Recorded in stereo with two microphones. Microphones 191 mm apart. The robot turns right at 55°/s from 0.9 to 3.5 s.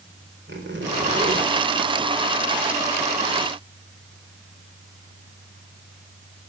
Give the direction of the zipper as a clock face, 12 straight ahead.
3 o'clock.